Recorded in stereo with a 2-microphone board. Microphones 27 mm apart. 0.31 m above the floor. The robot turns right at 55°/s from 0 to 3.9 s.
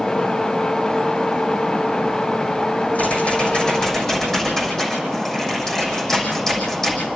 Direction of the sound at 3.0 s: 110° left.